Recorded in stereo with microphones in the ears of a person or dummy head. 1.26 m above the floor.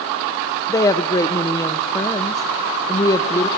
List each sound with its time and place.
0.7 s a woman speaking: 15° left (ahead or behind), 0.5 m